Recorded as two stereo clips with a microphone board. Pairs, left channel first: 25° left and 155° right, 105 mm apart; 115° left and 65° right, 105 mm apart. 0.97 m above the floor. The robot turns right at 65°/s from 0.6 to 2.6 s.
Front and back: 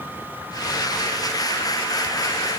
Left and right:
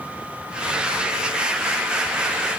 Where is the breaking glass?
I don't hear breaking glass.